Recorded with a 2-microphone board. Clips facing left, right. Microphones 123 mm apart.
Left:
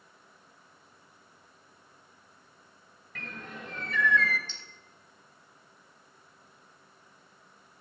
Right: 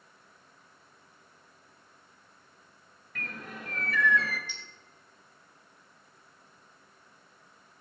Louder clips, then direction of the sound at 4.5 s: Right 3 dB; 10° right (ahead or behind).